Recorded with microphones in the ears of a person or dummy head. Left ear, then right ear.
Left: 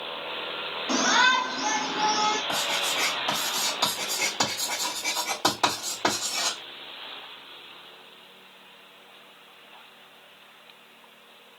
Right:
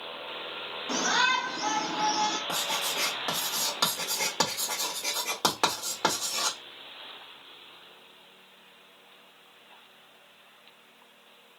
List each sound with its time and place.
0.9 s a shout: 5° right (ahead or behind), 0.8 m; by 2.4 s 55° right (ahead or behind), 0.9 m
2.5 s writing: 60° right (ahead or behind), 1.5 m